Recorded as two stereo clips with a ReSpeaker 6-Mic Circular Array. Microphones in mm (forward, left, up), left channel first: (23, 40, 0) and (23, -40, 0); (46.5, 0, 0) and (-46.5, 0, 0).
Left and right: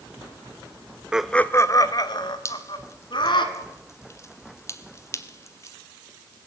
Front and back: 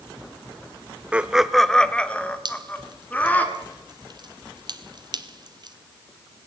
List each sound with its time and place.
1.1 s laughter: 140° right, 0.8 m; by 3.5 s 75° left, 3.5 m
2.5 s dripping: 145° left, 1.2 m